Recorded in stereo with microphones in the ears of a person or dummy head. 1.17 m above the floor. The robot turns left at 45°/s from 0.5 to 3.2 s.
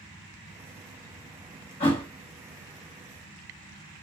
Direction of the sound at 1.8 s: 35° left (ahead or behind).